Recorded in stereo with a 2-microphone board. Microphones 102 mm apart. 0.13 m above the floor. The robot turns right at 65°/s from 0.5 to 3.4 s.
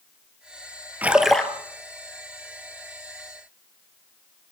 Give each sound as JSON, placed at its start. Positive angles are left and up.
{"t": 1.0, "sound": "a splash", "azimuth_deg": -20, "distance_m": 2.0}